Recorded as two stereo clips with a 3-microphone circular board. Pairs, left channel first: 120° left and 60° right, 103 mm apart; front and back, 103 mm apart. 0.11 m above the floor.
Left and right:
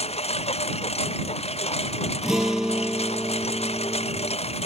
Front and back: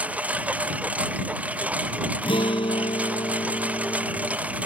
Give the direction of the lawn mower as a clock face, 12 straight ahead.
9 o'clock.